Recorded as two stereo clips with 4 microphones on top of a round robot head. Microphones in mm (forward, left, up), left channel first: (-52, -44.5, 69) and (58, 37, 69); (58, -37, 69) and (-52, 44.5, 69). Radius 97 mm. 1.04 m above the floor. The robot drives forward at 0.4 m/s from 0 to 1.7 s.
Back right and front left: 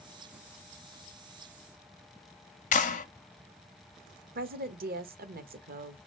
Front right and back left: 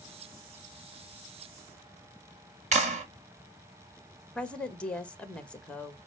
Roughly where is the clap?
Behind.